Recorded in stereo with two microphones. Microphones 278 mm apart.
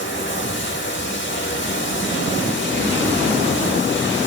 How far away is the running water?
About 2.5 m.